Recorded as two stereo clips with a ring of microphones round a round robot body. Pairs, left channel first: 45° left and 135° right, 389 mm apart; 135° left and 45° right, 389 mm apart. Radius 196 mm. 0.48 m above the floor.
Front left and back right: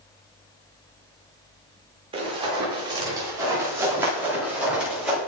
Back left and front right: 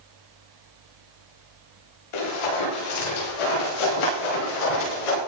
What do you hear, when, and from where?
2.1 s running footsteps: 145° left, 10 m; by 5.2 s 135° left, 11 m